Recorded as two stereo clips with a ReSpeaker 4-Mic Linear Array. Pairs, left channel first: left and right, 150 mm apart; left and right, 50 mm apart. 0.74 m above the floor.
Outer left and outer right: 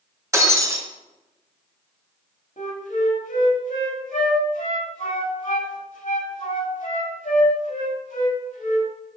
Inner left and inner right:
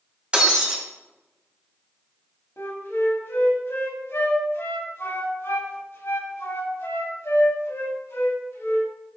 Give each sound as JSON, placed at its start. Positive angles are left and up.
{"t": 0.3, "sound": "breaking glass", "side_deg": -20, "distance_m": 1.7}
{"t": 2.6, "sound": "a flute", "side_deg": 60, "distance_m": 1.9}